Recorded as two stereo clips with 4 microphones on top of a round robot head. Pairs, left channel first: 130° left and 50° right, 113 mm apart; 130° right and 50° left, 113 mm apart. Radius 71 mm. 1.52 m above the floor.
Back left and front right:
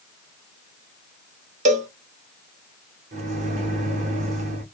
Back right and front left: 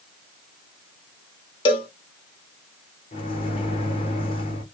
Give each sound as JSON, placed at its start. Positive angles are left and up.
{"t": 1.6, "sound": "a cowbell", "azimuth_deg": -80, "distance_m": 1.0}
{"t": 3.1, "sound": "a microwave", "azimuth_deg": -80, "distance_m": 0.9}